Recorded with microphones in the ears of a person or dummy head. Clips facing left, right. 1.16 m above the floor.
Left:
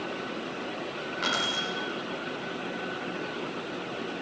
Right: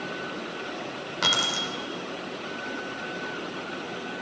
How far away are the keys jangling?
About 3 m.